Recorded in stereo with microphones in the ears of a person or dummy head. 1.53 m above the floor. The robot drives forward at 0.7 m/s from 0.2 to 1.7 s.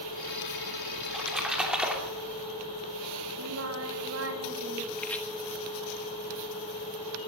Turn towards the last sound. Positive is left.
turn(degrees=10)  # may be behind; listen again after turning